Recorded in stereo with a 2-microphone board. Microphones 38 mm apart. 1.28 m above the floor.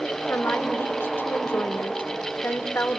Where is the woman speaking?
75° left (ahead or behind), 0.9 m.